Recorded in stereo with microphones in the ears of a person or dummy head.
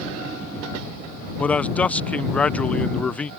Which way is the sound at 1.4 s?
5° left (ahead or behind).